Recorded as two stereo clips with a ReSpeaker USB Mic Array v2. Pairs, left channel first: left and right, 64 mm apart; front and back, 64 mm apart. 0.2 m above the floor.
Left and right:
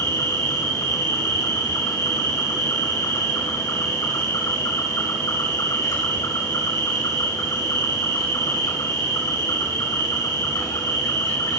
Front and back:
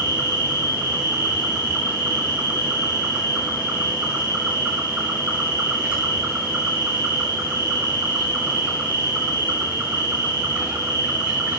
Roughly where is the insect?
Left.